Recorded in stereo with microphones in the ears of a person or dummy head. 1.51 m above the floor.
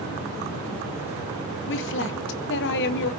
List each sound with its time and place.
1.7 s a woman speaking: 65° left (ahead or behind), 1.4 m